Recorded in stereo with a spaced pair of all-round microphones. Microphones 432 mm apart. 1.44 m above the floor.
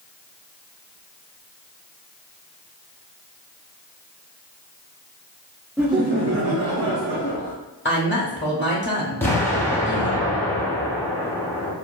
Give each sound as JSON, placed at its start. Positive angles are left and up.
{"t": 5.8, "sound": "laughter", "side_deg": 0, "distance_m": 0.6}
{"t": 7.8, "sound": "a woman speaking", "side_deg": 25, "distance_m": 0.6}
{"t": 9.2, "sound": "an explosion", "side_deg": 5, "distance_m": 0.6}